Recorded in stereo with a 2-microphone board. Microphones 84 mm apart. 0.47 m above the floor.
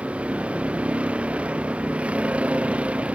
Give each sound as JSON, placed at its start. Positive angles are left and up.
{"t": 0.0, "sound": "a vehicle", "side_deg": -15}